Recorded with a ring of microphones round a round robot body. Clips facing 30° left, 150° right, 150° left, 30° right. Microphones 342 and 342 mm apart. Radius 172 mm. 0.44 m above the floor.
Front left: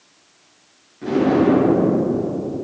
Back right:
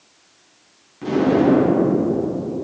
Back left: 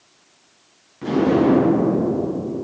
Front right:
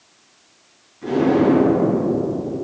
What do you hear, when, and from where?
1.0 s an explosion: 145° left, 4.5 m